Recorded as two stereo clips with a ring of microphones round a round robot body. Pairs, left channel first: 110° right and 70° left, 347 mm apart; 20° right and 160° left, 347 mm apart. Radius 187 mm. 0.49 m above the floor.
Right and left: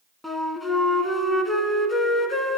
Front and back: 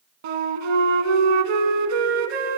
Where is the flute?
160° left, 1.5 m.